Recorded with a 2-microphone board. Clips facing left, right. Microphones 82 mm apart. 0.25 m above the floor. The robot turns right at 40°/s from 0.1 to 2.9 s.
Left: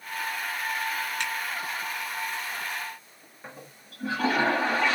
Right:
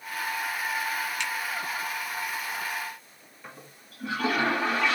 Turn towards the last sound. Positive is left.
turn(degrees=35)  # may be behind; listen again after turning